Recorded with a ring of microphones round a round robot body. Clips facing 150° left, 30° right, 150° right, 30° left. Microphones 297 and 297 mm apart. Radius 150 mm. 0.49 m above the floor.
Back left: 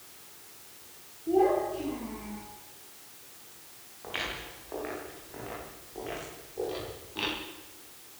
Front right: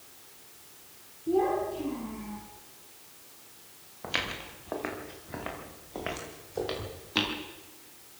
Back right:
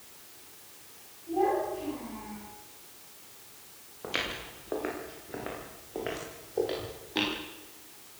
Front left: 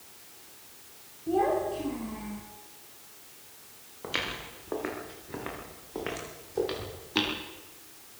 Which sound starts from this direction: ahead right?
Footsteps, at 4.0 s.